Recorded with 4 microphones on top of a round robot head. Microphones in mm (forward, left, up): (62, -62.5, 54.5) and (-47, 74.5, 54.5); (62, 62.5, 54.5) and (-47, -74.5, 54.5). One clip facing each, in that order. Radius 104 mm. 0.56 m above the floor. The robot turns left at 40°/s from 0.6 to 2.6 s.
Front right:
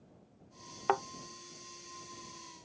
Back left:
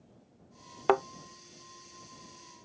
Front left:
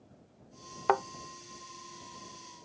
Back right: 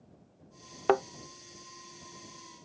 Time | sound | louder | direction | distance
0.9 | a thud | back left 6 dB, back right 3 dB | 175° left | ?